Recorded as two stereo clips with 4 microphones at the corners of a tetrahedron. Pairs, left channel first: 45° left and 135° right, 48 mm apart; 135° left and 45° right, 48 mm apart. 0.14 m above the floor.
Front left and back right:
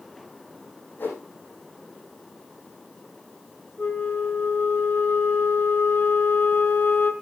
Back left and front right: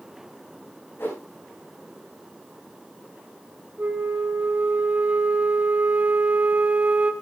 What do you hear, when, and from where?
1.0 s a whoosh: 90° left, 6.5 m
3.8 s a flute: 5° left, 1.7 m